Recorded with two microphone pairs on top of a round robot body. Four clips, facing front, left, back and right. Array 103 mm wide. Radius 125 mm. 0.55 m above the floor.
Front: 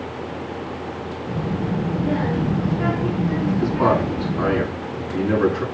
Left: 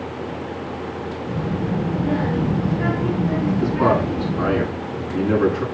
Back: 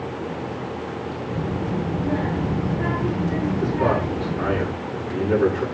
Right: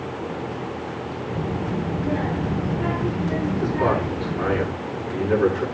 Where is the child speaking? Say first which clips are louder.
Left 3 dB, front 2 dB; 20° left, 6.5 m.